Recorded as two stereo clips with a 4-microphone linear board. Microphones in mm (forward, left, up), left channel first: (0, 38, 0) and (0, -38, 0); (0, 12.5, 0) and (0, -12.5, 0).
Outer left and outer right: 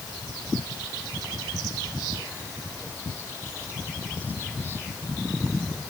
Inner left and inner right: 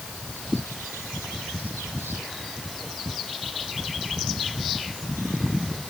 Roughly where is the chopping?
No chopping in this recording.